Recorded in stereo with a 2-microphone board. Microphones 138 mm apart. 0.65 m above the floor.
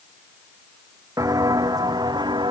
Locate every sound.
1.2 s footsteps: 25° right (ahead or behind); by 2.5 s 35° right (ahead or behind)